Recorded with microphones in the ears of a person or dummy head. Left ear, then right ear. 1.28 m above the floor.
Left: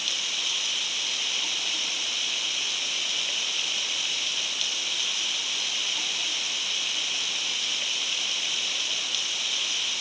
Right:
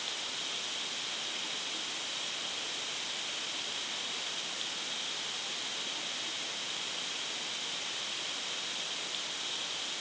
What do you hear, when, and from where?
0.0 s running water: 55° left (ahead or behind)